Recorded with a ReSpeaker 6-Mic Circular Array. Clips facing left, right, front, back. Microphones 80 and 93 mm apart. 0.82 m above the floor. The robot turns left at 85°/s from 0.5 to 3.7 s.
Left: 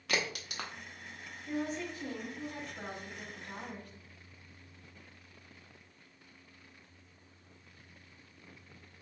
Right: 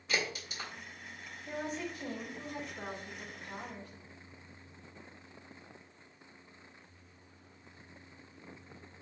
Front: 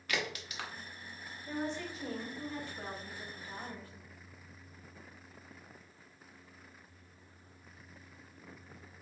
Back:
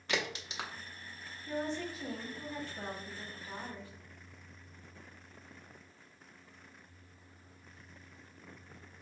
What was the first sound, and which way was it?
A crack, 115° left.